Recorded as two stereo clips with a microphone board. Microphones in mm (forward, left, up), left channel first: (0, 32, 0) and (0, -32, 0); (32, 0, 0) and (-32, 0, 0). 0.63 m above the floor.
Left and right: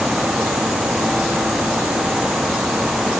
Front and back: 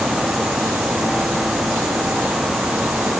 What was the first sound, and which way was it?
Only background noise.